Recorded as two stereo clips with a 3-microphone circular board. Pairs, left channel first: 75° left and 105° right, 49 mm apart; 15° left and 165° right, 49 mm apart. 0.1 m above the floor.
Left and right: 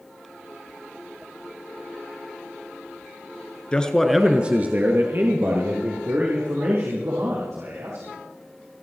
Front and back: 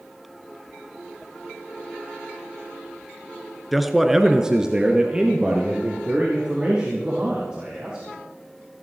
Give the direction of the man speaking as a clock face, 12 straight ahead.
8 o'clock.